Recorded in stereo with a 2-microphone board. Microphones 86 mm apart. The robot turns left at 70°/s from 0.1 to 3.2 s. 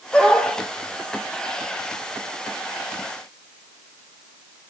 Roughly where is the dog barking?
Centre.